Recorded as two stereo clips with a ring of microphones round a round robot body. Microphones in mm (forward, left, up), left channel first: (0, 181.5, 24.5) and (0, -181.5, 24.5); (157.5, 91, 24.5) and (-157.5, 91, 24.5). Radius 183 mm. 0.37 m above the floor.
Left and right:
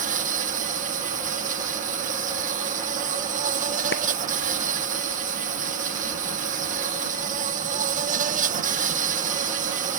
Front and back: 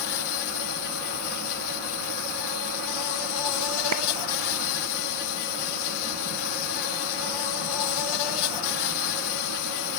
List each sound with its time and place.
0.0 s an insect: 20° right
3.9 s a clap: 155° left